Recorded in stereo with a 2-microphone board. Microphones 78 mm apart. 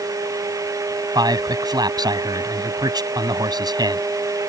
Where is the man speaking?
65° right (ahead or behind).